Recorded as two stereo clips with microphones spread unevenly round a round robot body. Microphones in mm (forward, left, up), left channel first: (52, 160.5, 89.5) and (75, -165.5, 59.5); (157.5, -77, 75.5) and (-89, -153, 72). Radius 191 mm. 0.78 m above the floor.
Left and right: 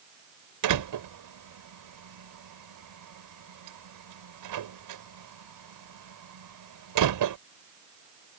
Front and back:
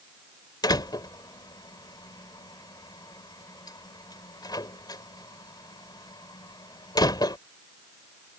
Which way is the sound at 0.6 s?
60° right.